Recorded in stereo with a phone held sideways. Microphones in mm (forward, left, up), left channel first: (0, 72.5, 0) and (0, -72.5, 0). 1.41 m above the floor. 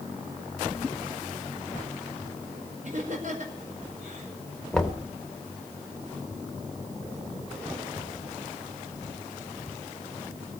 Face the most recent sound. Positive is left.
turn(degrees=5)  # may be behind; listen again after turning